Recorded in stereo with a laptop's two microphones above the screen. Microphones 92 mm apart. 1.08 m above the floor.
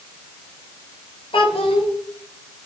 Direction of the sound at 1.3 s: 75° left (ahead or behind).